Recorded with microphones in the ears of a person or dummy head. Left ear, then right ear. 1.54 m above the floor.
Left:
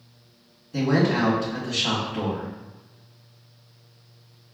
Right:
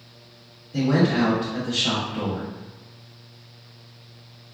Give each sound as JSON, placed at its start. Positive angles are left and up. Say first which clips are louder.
{"t": 0.7, "sound": "a man speaking", "louder": "right 1 dB", "side_deg": 30, "distance_m": 1.3}